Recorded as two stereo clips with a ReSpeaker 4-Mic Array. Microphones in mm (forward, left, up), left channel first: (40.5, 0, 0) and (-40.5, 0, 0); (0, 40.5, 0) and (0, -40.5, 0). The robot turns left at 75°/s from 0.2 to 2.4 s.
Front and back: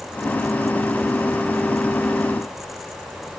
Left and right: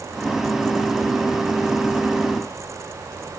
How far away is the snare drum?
I don't hear a snare drum.